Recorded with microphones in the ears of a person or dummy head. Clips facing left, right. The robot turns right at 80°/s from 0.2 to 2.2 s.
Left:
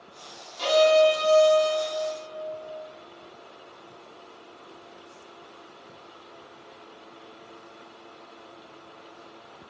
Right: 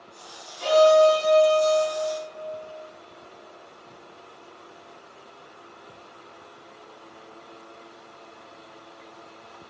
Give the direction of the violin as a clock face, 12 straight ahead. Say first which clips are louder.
Right 3 dB; 9 o'clock.